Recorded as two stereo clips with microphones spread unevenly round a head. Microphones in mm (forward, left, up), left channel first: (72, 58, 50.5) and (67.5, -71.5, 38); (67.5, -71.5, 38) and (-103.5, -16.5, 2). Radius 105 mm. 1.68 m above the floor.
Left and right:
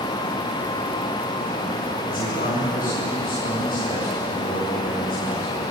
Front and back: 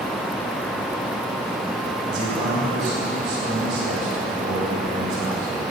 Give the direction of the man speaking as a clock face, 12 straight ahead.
8 o'clock.